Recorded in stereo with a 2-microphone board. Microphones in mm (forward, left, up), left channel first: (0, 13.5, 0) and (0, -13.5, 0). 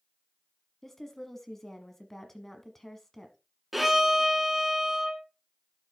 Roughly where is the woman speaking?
Centre.